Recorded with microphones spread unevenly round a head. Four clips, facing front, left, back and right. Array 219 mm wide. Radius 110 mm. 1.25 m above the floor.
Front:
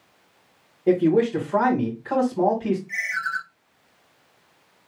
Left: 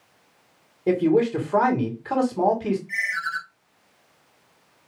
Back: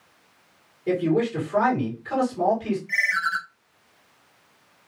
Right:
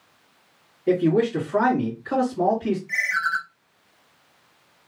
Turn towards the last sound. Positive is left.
turn(degrees=-135)